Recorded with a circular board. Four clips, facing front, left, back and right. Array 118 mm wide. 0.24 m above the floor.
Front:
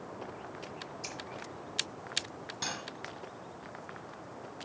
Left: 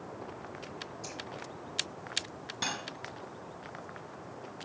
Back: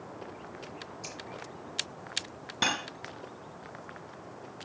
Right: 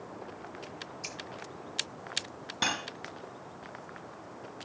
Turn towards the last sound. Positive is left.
turn(degrees=-150)